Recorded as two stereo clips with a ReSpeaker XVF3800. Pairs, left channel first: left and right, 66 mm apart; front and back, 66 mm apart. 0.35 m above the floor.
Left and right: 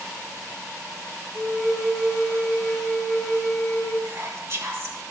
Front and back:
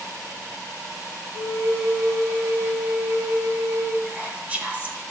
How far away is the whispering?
About 1.5 m.